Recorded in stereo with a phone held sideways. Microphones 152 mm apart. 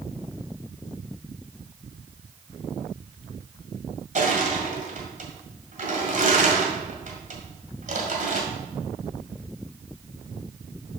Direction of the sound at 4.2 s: 55° right (ahead or behind).